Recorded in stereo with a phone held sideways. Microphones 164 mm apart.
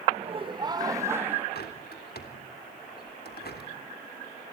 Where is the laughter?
40° right (ahead or behind), 1.3 m; by 1.4 s 10° right (ahead or behind), 1.8 m.